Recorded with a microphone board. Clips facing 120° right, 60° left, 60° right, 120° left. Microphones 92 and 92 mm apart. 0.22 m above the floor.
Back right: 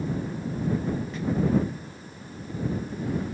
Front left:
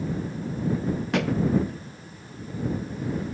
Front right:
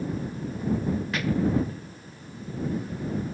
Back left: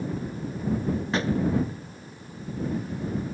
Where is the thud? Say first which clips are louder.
Front left 4 dB, back left 2 dB; 60° left.